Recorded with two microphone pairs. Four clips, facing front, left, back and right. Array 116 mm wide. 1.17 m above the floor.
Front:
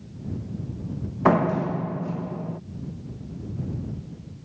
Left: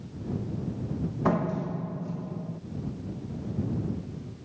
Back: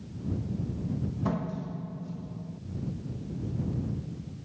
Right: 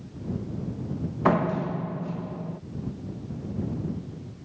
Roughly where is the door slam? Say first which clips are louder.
Right 4 dB, front 16 dB; ahead right.